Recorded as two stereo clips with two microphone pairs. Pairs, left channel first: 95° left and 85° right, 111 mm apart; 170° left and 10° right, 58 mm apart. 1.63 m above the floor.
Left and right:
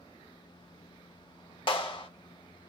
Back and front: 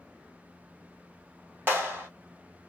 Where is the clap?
50° left, 1.7 m.